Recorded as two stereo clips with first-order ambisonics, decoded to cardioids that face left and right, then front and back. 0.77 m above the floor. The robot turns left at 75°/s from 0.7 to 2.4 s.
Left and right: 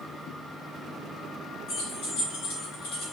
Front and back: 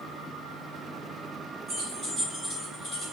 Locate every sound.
1.7 s keys jangling: 135° left, 1.4 m; by 3.1 s 80° left, 1.4 m